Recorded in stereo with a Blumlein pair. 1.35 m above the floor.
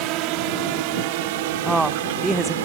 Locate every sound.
0.0 s a drone: 40° right; by 2.6 s 55° right
1.6 s a woman speaking: 10° right